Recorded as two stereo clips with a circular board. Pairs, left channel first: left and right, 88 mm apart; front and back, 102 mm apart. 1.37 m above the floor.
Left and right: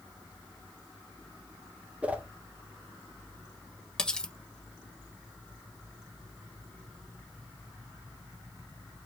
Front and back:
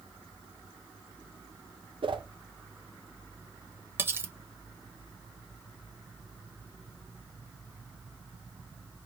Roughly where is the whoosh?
Behind.